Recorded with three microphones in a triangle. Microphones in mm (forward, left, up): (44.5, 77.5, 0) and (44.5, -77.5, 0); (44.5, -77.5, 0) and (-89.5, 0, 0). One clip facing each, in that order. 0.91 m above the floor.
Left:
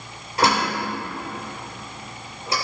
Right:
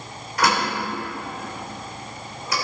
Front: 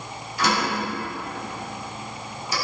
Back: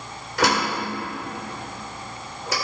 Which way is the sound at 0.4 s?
150° left.